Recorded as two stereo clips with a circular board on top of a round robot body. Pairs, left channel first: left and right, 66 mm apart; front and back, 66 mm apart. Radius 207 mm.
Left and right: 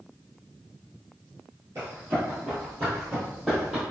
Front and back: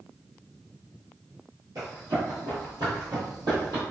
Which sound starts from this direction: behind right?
Running footsteps, at 1.8 s.